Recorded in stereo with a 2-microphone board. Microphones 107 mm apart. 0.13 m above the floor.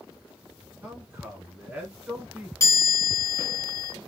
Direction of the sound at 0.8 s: 20° right (ahead or behind).